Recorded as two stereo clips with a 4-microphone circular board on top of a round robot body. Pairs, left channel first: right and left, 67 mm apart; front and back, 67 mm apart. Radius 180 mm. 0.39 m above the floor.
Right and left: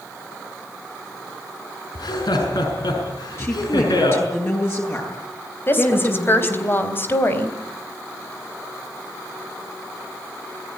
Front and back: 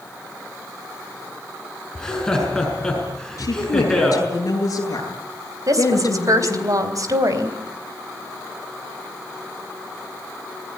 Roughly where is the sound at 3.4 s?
Ahead right.